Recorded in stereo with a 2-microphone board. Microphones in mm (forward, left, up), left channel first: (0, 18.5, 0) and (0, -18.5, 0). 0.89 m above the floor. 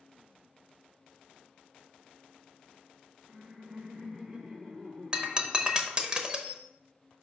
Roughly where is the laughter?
Right.